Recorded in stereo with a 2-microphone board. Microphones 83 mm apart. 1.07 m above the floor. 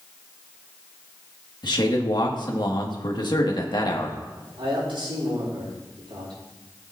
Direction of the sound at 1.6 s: 60° left (ahead or behind).